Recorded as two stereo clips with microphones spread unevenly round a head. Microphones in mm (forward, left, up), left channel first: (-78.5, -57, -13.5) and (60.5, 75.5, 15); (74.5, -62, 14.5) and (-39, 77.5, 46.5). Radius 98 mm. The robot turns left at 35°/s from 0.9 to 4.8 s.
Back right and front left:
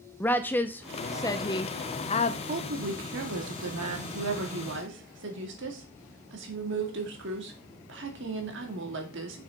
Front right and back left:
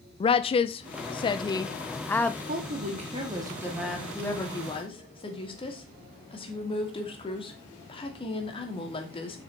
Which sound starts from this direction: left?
A woman speaking, at 2.5 s.